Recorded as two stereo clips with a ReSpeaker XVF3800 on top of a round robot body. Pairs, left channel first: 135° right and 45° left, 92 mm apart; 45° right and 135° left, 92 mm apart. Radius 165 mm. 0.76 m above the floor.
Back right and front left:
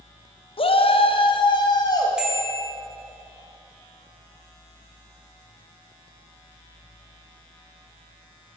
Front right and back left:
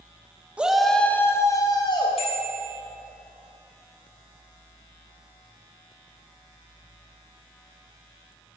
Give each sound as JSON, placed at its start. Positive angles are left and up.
{"t": 0.6, "sound": "a shout", "azimuth_deg": -150, "distance_m": 1.4}
{"t": 2.2, "sound": "a bicycle bell", "azimuth_deg": -35, "distance_m": 4.5}